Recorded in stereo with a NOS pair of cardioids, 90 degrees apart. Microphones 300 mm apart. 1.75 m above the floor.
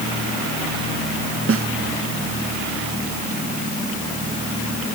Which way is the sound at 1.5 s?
45° right.